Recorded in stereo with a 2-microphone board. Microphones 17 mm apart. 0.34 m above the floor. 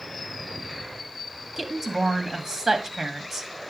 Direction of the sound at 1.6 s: 20° right (ahead or behind).